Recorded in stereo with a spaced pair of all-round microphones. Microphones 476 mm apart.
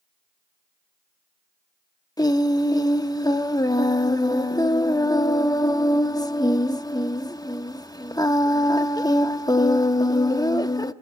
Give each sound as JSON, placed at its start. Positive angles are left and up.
{"t": 2.2, "sound": "singing", "side_deg": 10, "distance_m": 0.7}